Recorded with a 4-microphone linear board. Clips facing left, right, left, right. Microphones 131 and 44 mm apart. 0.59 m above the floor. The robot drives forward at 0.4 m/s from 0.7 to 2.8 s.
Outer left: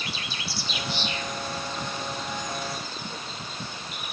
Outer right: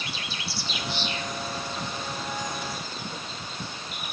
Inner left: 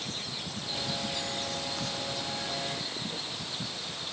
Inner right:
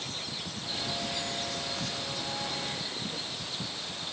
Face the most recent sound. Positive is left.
No sound to turn to.